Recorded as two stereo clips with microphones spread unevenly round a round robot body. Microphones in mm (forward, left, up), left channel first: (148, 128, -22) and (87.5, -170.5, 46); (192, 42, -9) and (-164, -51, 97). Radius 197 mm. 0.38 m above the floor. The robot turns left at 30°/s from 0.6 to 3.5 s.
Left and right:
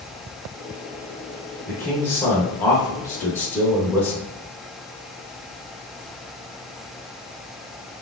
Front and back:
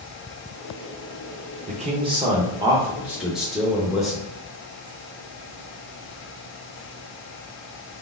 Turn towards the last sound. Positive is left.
turn(degrees=55)